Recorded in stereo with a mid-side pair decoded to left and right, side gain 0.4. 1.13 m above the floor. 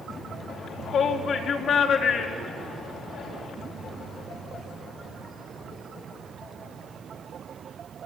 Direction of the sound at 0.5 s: 70° left.